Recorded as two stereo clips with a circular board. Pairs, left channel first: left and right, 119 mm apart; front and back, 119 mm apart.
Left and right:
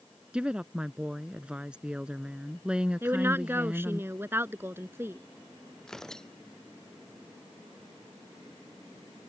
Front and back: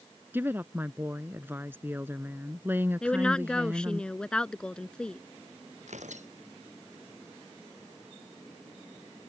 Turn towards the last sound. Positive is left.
turn(degrees=175)